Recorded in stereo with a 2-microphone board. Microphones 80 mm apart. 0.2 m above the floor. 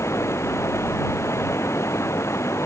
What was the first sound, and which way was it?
Running water, 35° left (ahead or behind).